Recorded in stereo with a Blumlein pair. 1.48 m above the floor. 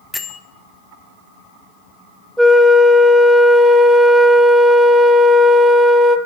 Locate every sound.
0.1 s a bell: 5° left, 0.7 m
2.4 s a flute: 5° right, 0.6 m